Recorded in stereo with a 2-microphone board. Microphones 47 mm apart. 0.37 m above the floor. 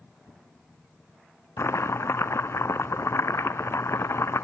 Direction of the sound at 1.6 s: 65° left (ahead or behind).